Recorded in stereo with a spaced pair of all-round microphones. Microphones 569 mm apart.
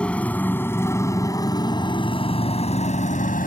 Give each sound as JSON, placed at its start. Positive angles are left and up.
{"t": 0.0, "sound": "a motorcycle", "side_deg": 0}